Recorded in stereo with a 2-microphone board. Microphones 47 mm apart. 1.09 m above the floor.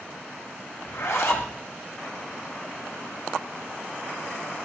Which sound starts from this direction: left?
A zipper, at 0.8 s.